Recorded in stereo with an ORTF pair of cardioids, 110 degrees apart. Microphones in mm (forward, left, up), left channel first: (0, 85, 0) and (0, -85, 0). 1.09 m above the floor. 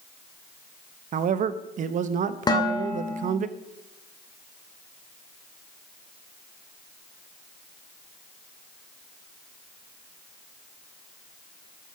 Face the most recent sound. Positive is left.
turn(degrees=25)